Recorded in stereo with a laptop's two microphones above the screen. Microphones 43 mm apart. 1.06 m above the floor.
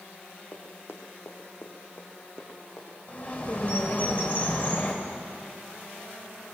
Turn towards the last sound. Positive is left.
turn(degrees=40)  # may be behind; listen again after turning